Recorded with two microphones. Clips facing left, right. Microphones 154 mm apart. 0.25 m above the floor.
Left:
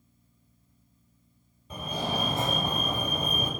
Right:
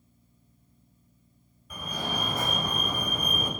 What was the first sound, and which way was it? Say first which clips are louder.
A fire alarm: left 3 dB; 25° left (ahead or behind).